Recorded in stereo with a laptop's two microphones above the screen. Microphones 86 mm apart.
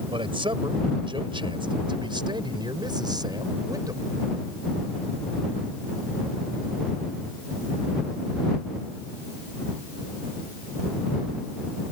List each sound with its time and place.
0.1 s a man speaking: 85° right; by 4.1 s 45° right (ahead or behind)